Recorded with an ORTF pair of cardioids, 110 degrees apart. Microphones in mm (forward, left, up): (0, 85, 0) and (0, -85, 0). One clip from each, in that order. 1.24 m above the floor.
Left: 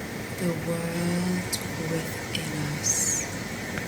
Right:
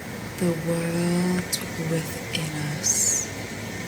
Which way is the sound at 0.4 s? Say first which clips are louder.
Right 4 dB; 15° right.